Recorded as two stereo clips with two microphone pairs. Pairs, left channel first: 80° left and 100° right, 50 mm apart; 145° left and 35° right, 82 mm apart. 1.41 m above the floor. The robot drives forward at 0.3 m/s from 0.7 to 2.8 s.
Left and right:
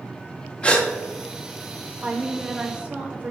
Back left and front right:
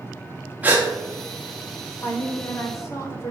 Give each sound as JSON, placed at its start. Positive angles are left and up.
{"t": 0.6, "sound": "a gasp", "azimuth_deg": 25, "distance_m": 1.2}
{"t": 2.0, "sound": "a woman speaking", "azimuth_deg": -160, "distance_m": 1.0}